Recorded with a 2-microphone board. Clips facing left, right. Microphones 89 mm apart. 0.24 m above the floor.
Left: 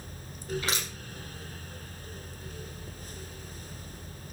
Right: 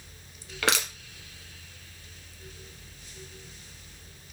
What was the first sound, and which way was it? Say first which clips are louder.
Crushing: right 6 dB; 75° right (ahead or behind).